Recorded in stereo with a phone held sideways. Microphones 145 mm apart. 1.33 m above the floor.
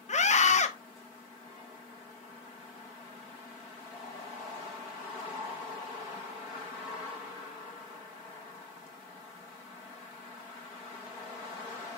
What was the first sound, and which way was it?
A scream, 50° left (ahead or behind).